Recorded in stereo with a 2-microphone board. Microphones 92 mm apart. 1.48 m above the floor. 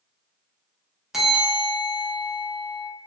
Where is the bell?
5° right (ahead or behind), 0.8 m.